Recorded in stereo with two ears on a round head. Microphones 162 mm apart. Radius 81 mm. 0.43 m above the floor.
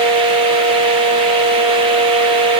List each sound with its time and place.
Only background noise.